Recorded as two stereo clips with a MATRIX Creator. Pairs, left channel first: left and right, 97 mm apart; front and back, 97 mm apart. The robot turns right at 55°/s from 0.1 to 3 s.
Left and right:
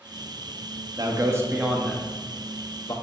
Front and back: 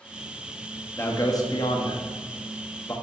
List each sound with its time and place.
1.0 s a man speaking: 55° right, 0.8 m; by 2.9 s 55° left, 0.8 m